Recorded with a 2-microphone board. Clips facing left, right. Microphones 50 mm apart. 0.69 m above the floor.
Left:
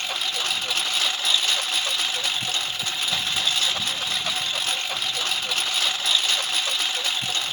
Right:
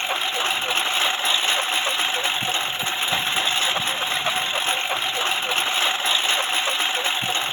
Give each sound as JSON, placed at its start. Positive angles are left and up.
{"t": 0.0, "sound": "a lawn mower", "side_deg": -25}